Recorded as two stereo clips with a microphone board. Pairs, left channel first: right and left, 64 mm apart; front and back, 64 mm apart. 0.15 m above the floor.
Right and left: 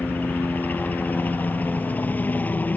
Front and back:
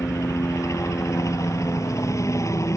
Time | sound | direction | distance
0.0 | a helicopter | 30° right | ?